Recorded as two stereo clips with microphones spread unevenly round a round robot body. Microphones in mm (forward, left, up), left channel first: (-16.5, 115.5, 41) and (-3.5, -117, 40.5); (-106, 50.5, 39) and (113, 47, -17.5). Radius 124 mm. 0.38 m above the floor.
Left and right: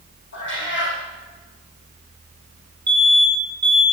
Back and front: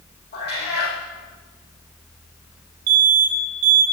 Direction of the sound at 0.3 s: 135° left.